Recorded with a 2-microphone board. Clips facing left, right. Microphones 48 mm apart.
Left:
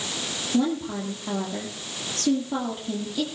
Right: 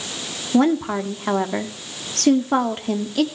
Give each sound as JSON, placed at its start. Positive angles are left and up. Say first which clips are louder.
{"t": 0.5, "sound": "a woman speaking", "louder": "right 7 dB", "side_deg": -65, "distance_m": 2.0}